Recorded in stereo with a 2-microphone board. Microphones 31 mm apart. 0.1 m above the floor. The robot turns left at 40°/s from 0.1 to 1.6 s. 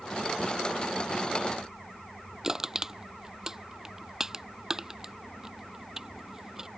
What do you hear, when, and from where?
2.4 s crushing: 15° right (ahead or behind)